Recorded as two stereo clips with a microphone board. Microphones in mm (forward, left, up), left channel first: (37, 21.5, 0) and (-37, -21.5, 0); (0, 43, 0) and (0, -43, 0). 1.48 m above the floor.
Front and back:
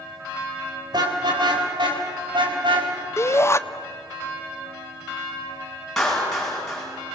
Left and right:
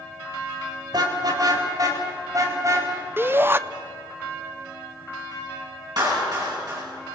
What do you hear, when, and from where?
0.9 s a car horn: 120° right, 3 m; by 2.9 s 140° right, 4 m
3.2 s a shout: 30° right, 0.6 m
6.0 s a clap: 55° right, 9.5 m